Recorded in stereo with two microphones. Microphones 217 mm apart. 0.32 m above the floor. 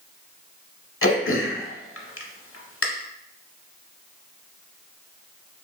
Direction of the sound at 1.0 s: 75° left (ahead or behind).